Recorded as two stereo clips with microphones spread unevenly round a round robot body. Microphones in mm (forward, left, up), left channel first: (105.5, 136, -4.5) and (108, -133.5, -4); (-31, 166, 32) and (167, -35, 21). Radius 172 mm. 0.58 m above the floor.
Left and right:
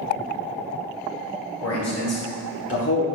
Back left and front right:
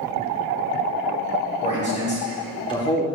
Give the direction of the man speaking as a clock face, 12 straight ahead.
10 o'clock.